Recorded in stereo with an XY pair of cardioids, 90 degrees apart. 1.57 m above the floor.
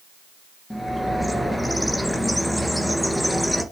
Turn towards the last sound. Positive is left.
turn(degrees=0)